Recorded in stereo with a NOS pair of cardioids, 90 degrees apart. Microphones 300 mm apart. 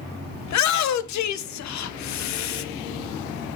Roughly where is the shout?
Ahead left.